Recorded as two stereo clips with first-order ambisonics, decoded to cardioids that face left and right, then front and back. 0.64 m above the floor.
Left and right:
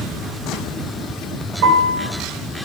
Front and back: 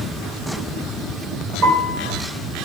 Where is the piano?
130° right, 3.5 m.